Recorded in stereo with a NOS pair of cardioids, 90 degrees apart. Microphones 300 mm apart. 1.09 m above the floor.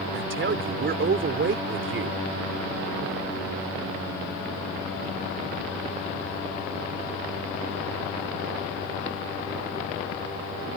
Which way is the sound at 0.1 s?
40° right.